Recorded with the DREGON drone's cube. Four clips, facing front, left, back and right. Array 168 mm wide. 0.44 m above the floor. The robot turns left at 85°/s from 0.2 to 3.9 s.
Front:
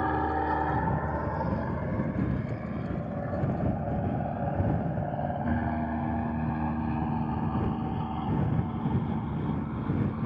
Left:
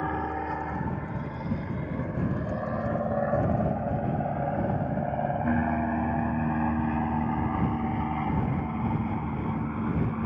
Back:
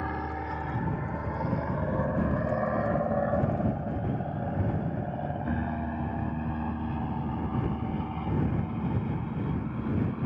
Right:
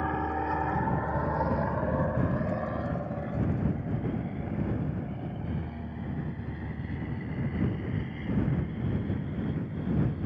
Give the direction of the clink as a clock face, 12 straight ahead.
No clink in this recording.